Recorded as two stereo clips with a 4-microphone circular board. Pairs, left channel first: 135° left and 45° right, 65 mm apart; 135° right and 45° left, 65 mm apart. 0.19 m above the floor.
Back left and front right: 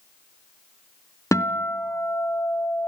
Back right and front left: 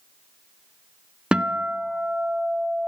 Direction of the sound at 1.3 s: 120° left.